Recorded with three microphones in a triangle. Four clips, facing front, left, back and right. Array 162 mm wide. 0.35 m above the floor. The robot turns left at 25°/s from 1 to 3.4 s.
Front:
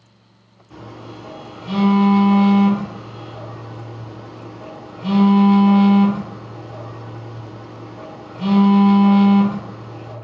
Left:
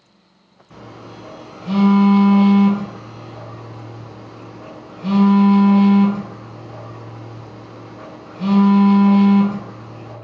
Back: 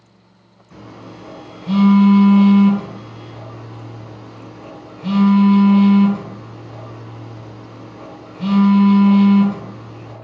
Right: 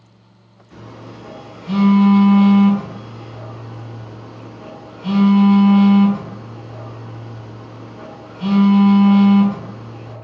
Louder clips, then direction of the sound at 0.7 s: Even, front 1 dB; 80° left.